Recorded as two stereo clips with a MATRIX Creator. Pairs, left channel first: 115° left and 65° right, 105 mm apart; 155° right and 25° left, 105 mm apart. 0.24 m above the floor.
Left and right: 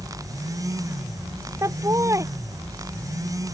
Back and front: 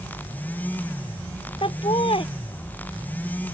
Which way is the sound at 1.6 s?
130° right.